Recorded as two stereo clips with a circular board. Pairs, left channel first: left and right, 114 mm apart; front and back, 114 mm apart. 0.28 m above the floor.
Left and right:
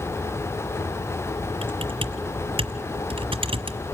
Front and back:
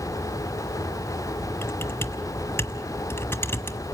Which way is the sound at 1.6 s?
65° right.